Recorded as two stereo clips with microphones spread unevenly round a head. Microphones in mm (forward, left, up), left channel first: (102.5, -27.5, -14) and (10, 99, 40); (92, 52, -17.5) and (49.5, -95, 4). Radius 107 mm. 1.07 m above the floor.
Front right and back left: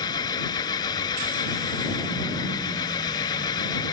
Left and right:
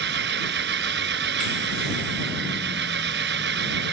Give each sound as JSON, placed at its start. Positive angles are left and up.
{"t": 0.0, "sound": "an engine running", "azimuth_deg": -130}